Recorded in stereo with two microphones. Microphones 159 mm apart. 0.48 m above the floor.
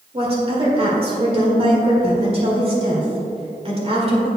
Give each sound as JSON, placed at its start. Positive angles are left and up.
{"t": 0.1, "sound": "a woman speaking", "side_deg": -40, "distance_m": 1.9}